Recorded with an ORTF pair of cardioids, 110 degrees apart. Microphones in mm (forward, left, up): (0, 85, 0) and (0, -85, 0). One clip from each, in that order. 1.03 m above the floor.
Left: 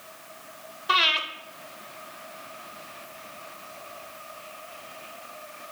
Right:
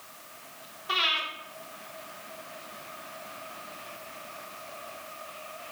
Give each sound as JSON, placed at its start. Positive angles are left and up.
{"t": 0.9, "sound": "breathing", "azimuth_deg": 35, "distance_m": 0.7}